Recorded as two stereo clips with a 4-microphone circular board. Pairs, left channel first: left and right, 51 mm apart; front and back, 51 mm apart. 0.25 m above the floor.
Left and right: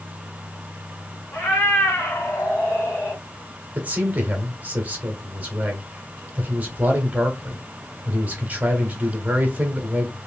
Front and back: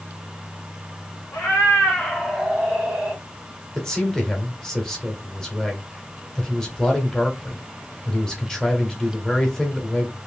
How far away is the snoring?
I don't hear snoring.